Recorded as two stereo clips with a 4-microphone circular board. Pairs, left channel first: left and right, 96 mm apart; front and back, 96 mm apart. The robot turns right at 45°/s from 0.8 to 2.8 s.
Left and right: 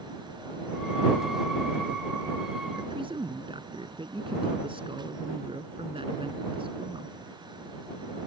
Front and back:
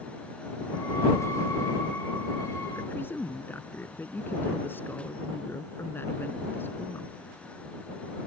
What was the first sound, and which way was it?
A man speaking, 70° right.